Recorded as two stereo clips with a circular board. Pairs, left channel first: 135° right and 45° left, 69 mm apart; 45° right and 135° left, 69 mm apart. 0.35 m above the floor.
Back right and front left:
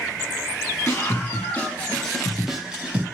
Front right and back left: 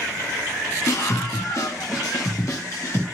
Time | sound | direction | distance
0.9 | a scream | 85° right | 2.5 m